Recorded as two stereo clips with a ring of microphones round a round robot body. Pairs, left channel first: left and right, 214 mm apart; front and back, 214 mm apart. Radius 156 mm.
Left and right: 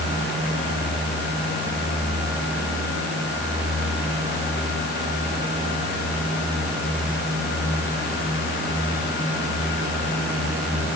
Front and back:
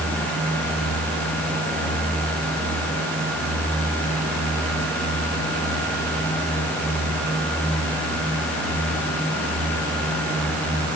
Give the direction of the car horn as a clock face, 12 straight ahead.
No car horn in this recording.